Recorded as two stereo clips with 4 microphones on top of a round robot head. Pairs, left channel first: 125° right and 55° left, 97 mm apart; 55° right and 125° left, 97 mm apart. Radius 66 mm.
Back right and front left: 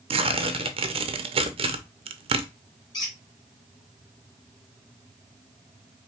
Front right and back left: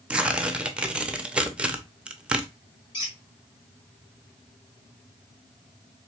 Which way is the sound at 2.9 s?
80° right.